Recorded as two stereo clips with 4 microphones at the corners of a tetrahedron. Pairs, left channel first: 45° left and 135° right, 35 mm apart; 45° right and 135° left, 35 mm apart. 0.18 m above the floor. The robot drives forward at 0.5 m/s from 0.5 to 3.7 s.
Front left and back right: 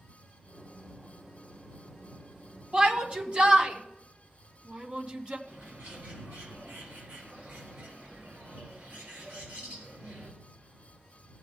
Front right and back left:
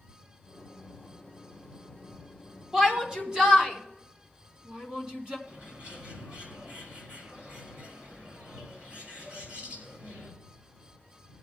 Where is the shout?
170° right, 1.5 m; by 5.4 s 175° right, 1.8 m.